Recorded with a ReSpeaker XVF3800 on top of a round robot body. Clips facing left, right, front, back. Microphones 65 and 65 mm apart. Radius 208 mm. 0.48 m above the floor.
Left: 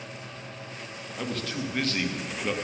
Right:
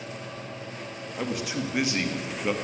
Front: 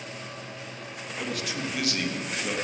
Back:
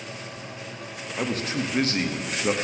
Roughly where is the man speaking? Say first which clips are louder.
Right 2 dB, back 5 dB; behind right.